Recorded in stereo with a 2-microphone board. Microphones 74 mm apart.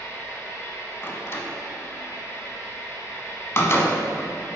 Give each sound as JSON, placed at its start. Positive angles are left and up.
{"t": 0.0, "sound": "an engine running", "side_deg": 40, "distance_m": 1.5}
{"t": 1.0, "sound": "a door slam", "side_deg": 40, "distance_m": 0.8}